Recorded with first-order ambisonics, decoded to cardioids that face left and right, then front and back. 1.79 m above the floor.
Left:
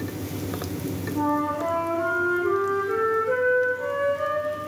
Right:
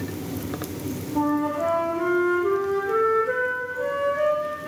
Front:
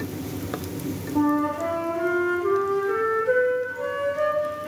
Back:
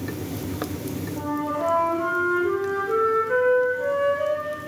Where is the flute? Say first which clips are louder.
Right 1 dB, front 4 dB; 20° right, 4 m.